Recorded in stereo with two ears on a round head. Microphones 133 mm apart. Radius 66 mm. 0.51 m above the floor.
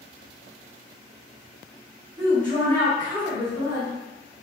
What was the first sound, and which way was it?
A woman speaking, 30° right (ahead or behind).